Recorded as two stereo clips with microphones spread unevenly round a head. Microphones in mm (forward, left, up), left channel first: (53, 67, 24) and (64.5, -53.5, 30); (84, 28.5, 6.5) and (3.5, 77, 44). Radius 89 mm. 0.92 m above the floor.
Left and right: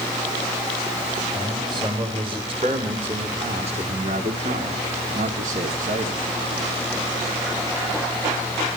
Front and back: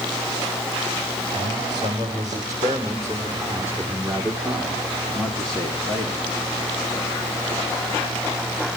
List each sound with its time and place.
1.3 s a man speaking: 145° right, 4 m; by 6.2 s 100° right, 2.5 m